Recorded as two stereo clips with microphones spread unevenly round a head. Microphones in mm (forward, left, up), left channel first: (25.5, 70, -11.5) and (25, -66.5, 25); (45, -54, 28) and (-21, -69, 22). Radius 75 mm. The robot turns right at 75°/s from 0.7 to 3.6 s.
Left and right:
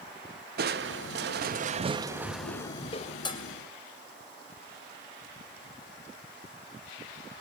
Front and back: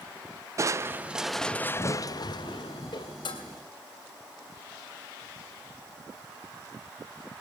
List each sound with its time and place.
0.6 s crushing: 125° right, 0.7 m; by 3.1 s 60° left, 0.7 m
3.2 s dishes clattering: 30° left, 3 m; by 3.4 s 45° left, 3 m